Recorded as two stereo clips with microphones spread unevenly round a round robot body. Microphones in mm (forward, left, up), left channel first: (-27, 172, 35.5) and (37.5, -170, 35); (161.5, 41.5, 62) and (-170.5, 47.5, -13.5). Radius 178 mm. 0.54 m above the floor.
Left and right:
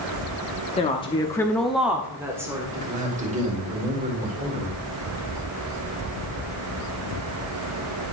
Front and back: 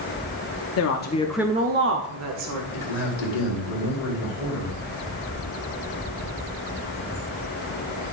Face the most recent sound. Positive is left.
turn(degrees=-10)